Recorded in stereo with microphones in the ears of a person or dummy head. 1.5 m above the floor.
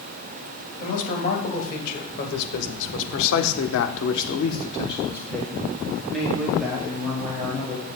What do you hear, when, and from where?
0.8 s a man speaking: 45° left (ahead or behind), 2.5 m; by 7.9 s 5° right (ahead or behind), 3 m